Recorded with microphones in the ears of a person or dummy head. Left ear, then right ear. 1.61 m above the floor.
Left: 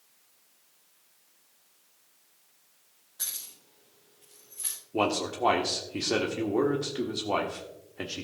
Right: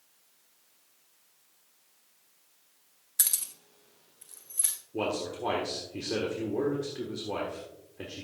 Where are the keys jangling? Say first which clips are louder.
Right 5 dB; 50° right (ahead or behind), 0.9 m; by 4.7 s 35° right (ahead or behind), 2.5 m.